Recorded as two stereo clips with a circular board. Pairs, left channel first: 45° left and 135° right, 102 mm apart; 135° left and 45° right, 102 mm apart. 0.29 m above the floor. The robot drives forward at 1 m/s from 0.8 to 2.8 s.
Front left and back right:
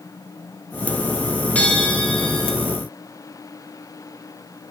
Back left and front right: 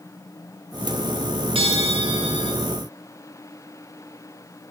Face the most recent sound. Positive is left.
turn(degrees=-40)